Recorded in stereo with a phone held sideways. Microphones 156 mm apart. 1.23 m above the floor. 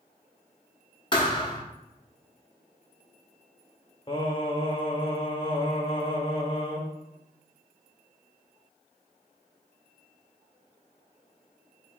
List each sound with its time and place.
1.1 s a thud: 30° left (ahead or behind), 0.8 m
4.1 s singing: 30° left (ahead or behind), 0.9 m